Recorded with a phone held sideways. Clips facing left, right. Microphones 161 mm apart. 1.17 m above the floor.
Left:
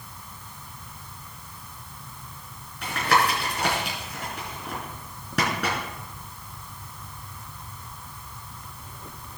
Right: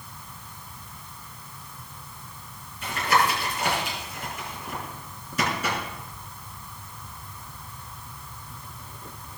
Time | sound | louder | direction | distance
2.8 | tapping | even | 75° left (ahead or behind) | 4 m